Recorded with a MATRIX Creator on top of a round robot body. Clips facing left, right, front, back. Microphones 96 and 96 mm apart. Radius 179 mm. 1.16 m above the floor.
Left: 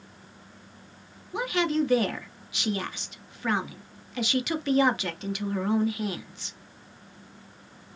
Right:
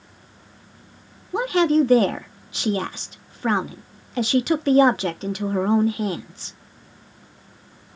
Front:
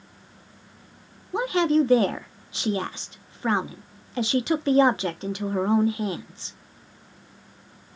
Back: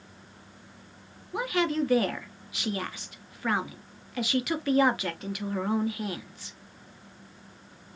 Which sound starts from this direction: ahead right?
A woman speaking, at 1.3 s.